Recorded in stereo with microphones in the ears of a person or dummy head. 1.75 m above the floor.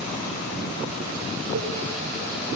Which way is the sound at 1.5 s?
75° right (ahead or behind).